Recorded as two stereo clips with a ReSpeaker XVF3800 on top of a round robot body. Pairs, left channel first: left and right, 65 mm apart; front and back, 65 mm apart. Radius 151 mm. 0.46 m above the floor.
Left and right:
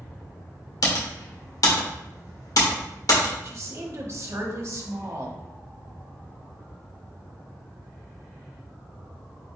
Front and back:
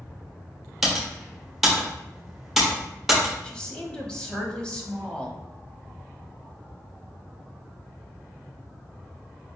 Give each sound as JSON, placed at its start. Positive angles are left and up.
{"t": 0.8, "sound": "typing on a keyboard", "azimuth_deg": 95, "distance_m": 1.4}
{"t": 3.4, "sound": "a woman speaking", "azimuth_deg": -70, "distance_m": 1.2}